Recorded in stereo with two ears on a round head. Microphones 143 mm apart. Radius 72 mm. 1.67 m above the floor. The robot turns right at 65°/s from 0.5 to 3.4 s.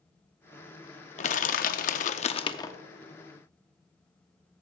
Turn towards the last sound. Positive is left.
turn(degrees=-160)